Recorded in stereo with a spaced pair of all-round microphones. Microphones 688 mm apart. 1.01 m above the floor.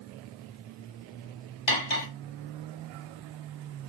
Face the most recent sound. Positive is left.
turn(degrees=50)  # may be behind; listen again after turning